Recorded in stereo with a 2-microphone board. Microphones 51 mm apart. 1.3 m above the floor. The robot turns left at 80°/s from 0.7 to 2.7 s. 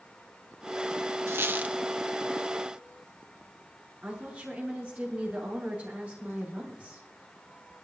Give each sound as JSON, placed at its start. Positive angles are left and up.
{"t": 1.3, "sound": "a squeak", "azimuth_deg": -115, "distance_m": 0.8}
{"t": 4.0, "sound": "a woman speaking", "side_deg": -20, "distance_m": 9.0}